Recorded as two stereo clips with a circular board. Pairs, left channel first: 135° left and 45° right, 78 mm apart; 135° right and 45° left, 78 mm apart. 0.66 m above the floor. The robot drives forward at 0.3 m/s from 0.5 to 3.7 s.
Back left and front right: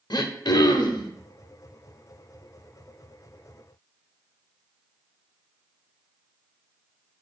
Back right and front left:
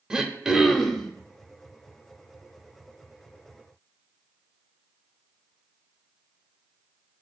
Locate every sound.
0.1 s throat clearing: 125° left, 0.5 m; by 1.1 s 140° left, 0.6 m